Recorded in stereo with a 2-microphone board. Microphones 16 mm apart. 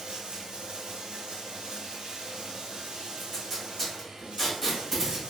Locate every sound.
0.0 s running water: 80° right, 0.9 m
3.2 s tape being pulled: 20° left (ahead or behind), 1.2 m